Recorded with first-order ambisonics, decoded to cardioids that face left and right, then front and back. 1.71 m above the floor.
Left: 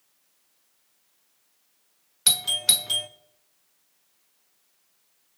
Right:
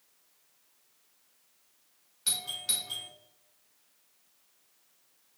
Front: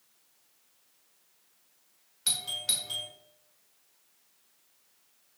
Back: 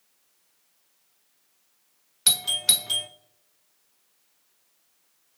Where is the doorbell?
130° left, 0.5 m.